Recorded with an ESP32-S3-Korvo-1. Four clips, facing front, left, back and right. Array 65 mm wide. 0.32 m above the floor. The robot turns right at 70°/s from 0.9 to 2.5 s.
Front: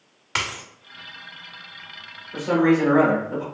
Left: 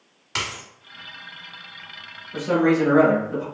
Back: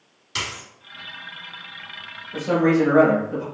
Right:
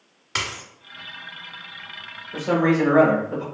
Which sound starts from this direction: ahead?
A dropped coin, at 0.3 s.